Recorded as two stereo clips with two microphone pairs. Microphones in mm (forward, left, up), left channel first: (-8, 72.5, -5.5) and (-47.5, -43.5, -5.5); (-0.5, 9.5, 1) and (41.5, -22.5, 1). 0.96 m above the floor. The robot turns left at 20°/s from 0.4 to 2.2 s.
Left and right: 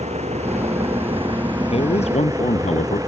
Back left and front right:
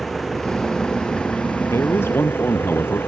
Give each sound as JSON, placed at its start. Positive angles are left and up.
{"t": 0.0, "sound": "an engine running", "azimuth_deg": -135}
{"t": 1.7, "sound": "a man speaking", "azimuth_deg": 105}